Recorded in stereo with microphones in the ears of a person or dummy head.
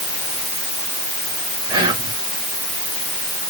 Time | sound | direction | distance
1.7 | whispering | 25° right (ahead or behind) | 1.4 m